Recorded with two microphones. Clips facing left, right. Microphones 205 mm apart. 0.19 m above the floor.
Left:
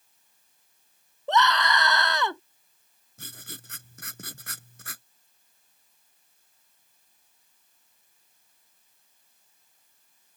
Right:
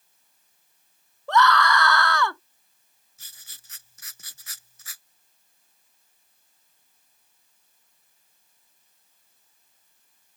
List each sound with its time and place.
1.3 s a scream: 20° left (ahead or behind)
3.2 s writing: 60° left (ahead or behind)